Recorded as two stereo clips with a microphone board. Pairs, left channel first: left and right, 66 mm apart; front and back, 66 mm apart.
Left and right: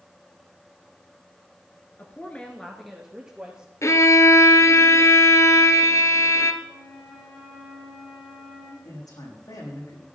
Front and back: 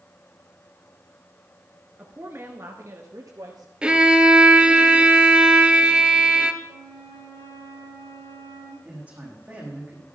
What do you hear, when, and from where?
2.0 s a woman speaking: 130° left, 1.5 m; by 3.7 s 155° right, 2 m
3.8 s a violin: 105° left, 1.2 m
6.6 s a flute: 15° left, 4.5 m
8.8 s a man speaking: 110° left, 6 m